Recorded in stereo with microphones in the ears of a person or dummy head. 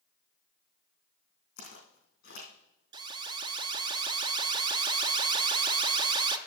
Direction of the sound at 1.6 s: 45° left (ahead or behind).